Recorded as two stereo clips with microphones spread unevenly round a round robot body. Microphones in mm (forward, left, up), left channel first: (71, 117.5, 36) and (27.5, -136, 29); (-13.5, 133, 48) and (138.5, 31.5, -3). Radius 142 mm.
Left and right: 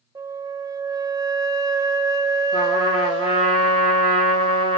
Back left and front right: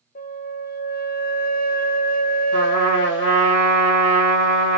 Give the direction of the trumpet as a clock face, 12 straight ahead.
7 o'clock.